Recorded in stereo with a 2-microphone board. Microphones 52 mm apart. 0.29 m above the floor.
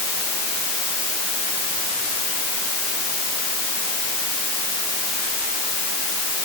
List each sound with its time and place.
Only background noise.